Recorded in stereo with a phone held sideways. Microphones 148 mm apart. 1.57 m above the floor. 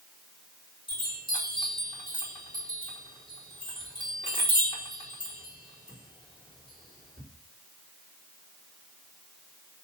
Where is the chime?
35° left (ahead or behind), 5 m.